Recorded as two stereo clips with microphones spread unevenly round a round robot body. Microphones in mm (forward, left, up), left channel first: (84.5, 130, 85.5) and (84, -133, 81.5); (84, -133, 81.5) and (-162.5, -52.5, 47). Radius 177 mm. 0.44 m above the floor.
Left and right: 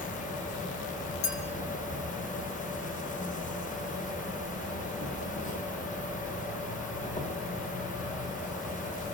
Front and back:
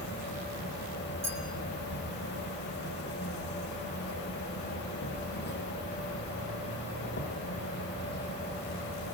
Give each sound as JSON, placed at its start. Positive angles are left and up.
{"t": 0.0, "sound": "an insect", "azimuth_deg": 35, "distance_m": 2.0}
{"t": 1.2, "sound": "a clink", "azimuth_deg": 80, "distance_m": 6.0}